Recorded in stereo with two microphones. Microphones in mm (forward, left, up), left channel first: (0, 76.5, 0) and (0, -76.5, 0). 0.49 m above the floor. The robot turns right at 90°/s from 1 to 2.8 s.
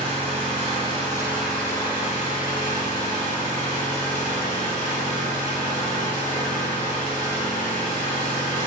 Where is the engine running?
40° right, 1.3 m; by 8.7 s 120° left, 1.3 m.